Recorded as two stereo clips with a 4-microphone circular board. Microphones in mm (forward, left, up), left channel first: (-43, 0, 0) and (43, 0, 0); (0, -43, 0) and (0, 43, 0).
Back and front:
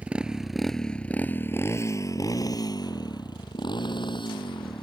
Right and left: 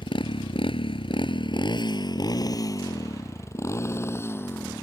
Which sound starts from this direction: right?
A motorcycle, at 0.0 s.